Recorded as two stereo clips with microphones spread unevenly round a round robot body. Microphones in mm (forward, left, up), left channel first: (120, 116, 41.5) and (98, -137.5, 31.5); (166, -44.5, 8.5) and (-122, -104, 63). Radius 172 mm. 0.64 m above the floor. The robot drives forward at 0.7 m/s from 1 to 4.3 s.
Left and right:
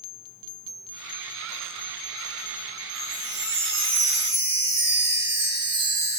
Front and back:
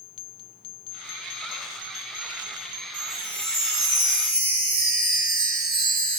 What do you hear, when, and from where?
2.9 s a chime: 100° right, 1.7 m; by 6.2 s 130° right, 2 m